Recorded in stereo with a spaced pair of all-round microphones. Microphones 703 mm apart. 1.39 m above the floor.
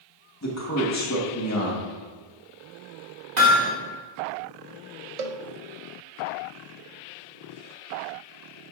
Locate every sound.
0.4 s a man speaking: 25° left (ahead or behind), 1.7 m
3.4 s hammering: 70° right (ahead or behind), 3 m
5.2 s a cowbell: 60° right (ahead or behind), 0.7 m